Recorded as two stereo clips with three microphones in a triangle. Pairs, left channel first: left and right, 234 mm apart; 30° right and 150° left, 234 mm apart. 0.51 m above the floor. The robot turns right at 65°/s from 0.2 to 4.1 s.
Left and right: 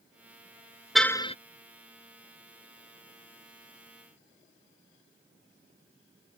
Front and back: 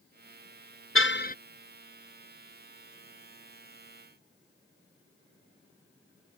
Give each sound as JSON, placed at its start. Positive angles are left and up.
{"t": 0.9, "sound": "a car horn", "azimuth_deg": 0}